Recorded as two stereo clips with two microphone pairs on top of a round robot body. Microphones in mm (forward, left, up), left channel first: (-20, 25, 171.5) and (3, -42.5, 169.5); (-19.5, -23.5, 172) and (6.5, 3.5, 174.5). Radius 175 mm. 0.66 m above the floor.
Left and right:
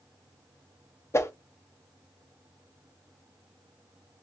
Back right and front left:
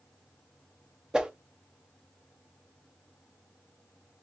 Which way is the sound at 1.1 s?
115° left.